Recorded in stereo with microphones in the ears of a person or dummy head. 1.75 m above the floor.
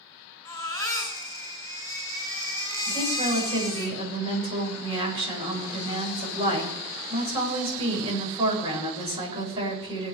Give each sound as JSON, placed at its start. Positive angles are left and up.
{"t": 0.5, "sound": "a baby crying", "side_deg": 15, "distance_m": 5.5}
{"t": 2.9, "sound": "a woman speaking", "side_deg": -30, "distance_m": 8.5}